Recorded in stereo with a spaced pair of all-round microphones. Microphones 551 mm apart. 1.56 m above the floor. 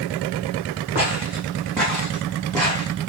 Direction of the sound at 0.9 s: 15° right (ahead or behind).